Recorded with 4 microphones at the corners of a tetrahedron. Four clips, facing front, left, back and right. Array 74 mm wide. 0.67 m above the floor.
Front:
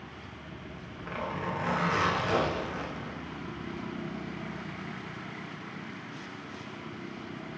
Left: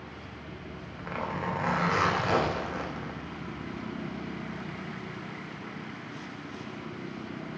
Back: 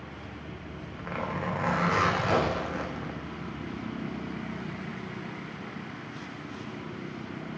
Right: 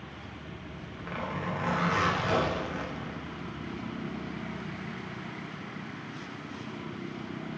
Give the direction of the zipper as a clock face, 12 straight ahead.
7 o'clock.